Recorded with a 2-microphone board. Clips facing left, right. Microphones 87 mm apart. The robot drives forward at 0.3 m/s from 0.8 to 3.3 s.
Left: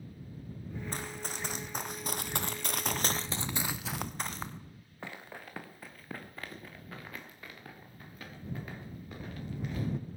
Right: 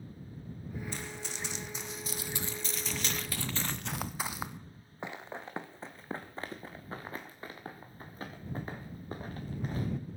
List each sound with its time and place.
0.9 s running footsteps: 45° left (ahead or behind), 1.6 m; by 9.9 s 40° right (ahead or behind), 3.5 m